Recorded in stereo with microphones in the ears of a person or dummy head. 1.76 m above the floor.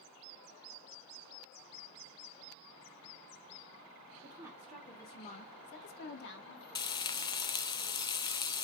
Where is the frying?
25° left (ahead or behind), 0.6 m.